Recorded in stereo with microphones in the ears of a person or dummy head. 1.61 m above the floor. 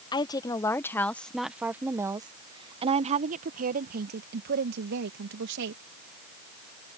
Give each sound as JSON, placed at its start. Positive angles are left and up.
{"t": 0.1, "sound": "a woman speaking", "side_deg": 15}